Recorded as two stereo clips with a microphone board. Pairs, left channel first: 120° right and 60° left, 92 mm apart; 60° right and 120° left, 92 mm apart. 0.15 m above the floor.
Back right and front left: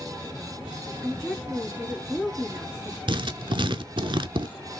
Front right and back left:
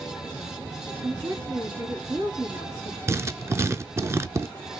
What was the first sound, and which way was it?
A woman speaking, 155° left.